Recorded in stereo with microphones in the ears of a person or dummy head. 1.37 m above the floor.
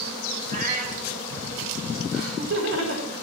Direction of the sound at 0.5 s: 50° right (ahead or behind).